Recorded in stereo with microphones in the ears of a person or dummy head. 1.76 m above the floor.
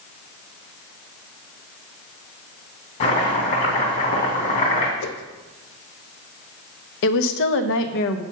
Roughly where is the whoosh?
Left.